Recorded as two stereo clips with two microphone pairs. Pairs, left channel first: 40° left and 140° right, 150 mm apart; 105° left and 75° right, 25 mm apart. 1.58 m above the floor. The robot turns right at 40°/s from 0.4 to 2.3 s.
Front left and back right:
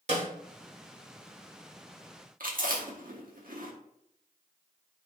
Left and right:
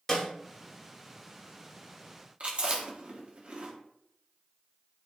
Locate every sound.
0.1 s a snare drum: straight behind, 2.5 m
2.4 s chewing: 120° right, 1.8 m